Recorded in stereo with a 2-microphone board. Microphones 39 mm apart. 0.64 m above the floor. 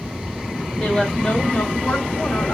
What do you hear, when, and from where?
0.8 s a woman speaking: 10° left (ahead or behind), 2.5 m; by 2.5 s 40° left (ahead or behind), 2.5 m